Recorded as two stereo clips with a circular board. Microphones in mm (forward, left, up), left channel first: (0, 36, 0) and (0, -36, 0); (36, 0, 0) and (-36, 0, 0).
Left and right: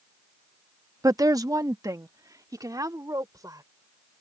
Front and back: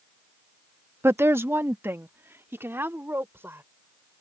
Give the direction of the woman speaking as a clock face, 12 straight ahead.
4 o'clock.